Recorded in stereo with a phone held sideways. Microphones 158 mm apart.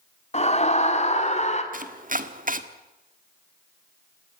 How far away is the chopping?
About 1.6 m.